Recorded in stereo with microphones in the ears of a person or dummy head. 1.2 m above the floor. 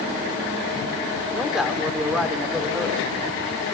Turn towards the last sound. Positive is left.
turn(degrees=0)  # may be behind; listen again after turning